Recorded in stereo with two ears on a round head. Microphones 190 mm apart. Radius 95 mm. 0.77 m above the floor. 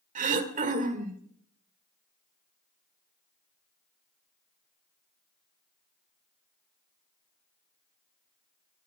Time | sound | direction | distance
0.1 | throat clearing | 35° right (ahead or behind) | 1.7 m